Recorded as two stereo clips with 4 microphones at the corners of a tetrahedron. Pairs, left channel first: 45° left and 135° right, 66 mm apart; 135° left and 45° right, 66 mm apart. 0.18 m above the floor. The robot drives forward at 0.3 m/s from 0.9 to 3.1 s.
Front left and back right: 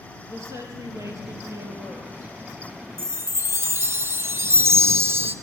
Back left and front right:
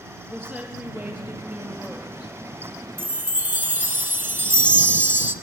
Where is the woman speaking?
105° right, 4 m; by 2.3 s 110° right, 4 m.